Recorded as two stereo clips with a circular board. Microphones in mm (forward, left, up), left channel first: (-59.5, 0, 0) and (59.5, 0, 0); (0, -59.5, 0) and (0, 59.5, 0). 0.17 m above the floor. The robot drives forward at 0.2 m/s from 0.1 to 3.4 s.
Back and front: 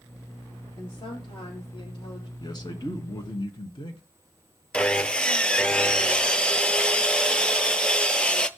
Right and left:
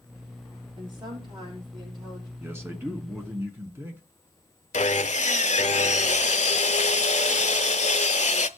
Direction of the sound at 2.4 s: 150° left.